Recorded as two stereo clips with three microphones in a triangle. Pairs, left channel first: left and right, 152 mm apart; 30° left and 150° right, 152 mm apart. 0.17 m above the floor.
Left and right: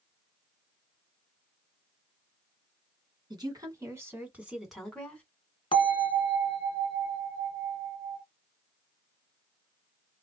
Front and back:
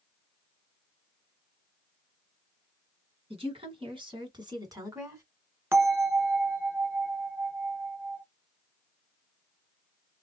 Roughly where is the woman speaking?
Behind right.